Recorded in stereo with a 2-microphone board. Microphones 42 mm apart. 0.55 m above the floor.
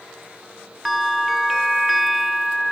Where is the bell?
Centre (ahead or behind), 0.6 m.